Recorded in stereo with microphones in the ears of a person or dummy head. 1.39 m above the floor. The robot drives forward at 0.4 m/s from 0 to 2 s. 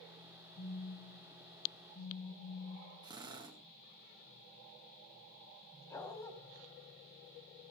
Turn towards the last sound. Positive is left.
turn(degrees=25)  # may be behind; listen again after turning